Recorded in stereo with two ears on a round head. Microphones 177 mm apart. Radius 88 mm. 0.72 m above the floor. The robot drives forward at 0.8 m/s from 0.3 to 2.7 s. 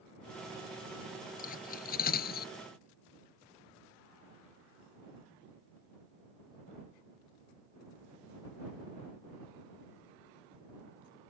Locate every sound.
1.4 s cutlery clinking: 45° left (ahead or behind); by 2.5 s 50° left (ahead or behind)